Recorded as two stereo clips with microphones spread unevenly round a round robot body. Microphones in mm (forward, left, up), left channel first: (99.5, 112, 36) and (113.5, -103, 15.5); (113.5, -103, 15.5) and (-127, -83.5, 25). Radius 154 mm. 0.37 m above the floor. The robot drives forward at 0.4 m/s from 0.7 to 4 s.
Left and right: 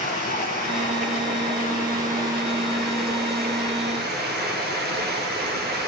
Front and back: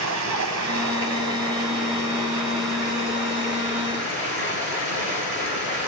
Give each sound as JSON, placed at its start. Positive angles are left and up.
{"t": 0.0, "sound": "running water", "azimuth_deg": 160, "distance_m": 1.5}